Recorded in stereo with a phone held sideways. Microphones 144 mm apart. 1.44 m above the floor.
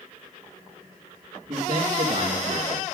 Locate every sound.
1.5 s a man speaking: 40° right (ahead or behind), 2.0 m; by 2.9 s 65° right (ahead or behind), 2.0 m